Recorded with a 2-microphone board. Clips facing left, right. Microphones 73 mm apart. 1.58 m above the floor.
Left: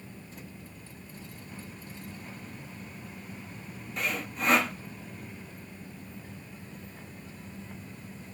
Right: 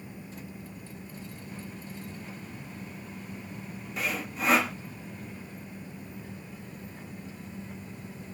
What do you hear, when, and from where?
4.0 s sawing: centre (ahead or behind), 0.8 m